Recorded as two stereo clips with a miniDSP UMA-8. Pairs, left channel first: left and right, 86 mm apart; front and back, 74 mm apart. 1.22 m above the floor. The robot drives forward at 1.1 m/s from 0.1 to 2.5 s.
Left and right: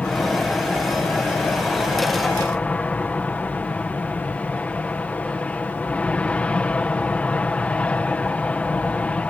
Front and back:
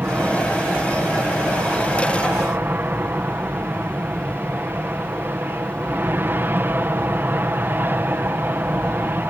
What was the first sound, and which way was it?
An aircraft, 150° left.